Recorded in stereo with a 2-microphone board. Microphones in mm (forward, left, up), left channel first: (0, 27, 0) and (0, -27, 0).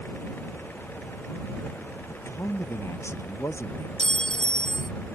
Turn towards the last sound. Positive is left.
turn(degrees=15)  # may be behind; listen again after turning